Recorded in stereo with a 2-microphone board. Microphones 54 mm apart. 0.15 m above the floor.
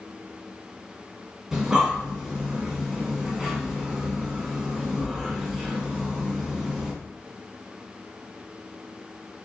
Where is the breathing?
10° right (ahead or behind), 1.4 m.